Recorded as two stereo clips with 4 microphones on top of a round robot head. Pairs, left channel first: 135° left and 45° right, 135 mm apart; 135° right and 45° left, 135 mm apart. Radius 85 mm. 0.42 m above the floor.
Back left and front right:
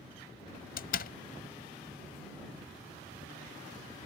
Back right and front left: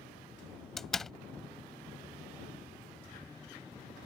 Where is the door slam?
140° left.